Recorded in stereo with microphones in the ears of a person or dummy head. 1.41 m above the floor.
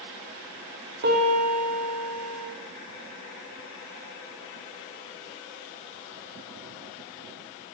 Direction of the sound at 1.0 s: 60° right (ahead or behind).